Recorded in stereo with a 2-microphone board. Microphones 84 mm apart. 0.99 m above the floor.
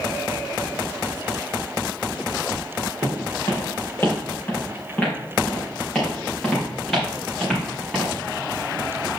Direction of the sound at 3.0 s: 35° left (ahead or behind).